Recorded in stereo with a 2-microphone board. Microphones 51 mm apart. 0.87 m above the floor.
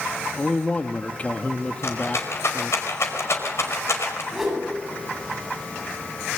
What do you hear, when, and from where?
0.4 s a man speaking: 30° left (ahead or behind), 1.5 m
1.8 s a rattle: 60° left (ahead or behind), 5 m
4.3 s a whoosh: 5° right (ahead or behind), 8 m